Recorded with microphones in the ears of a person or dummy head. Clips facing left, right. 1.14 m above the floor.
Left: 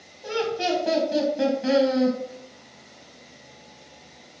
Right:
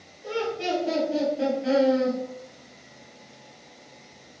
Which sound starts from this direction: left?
Laughter, at 0.2 s.